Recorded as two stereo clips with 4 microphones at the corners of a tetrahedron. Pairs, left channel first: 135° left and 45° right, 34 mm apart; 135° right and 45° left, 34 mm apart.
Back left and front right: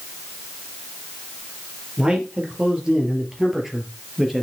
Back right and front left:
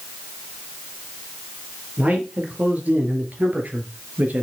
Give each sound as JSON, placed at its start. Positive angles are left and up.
{"t": 2.0, "sound": "a man speaking", "azimuth_deg": 10, "distance_m": 4.0}